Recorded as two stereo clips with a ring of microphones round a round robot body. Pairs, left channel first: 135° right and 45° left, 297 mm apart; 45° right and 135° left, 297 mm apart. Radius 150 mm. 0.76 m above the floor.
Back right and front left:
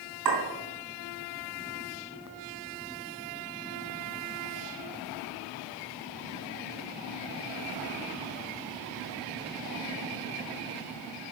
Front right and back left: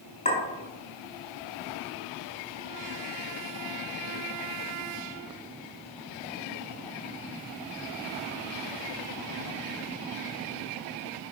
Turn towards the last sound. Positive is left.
turn(degrees=25)